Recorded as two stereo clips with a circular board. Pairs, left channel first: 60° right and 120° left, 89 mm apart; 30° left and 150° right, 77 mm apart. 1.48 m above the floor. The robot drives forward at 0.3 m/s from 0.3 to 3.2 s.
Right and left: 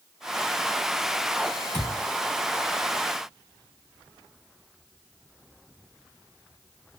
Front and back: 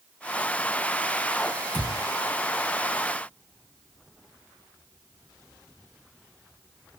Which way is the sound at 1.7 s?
15° right.